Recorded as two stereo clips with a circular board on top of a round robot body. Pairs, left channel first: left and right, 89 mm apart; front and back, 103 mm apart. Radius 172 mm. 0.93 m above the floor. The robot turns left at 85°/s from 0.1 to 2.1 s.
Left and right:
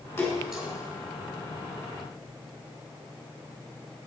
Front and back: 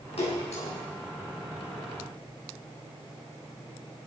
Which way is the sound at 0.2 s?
30° left.